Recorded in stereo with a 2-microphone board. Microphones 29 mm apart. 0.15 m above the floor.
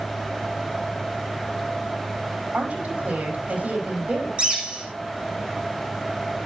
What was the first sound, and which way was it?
A woman speaking, 65° right (ahead or behind).